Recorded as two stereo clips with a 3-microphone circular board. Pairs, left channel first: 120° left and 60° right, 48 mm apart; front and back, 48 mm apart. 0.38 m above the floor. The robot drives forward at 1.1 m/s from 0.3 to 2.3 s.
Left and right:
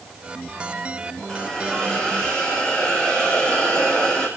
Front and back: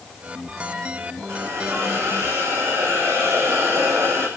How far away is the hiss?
About 4.5 m.